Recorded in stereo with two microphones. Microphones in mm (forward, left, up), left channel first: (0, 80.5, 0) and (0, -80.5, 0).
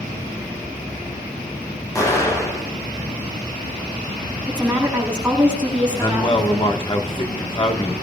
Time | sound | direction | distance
1.9 | an explosion | 20° left (ahead or behind) | 5.5 m
4.5 | a woman speaking | 10° right (ahead or behind) | 9 m
6.0 | a man speaking | 30° left (ahead or behind) | 1.5 m